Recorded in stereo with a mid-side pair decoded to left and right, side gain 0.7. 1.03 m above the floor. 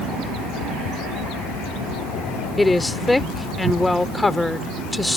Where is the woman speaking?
5° left.